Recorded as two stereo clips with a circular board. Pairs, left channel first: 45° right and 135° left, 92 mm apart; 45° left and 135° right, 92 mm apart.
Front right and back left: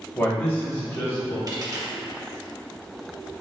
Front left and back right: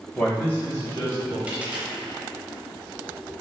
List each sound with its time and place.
0.1 s a man speaking: 30° right, 0.9 m; by 1.4 s 10° left, 1.4 m
1.5 s a dropped coin: 160° left, 0.6 m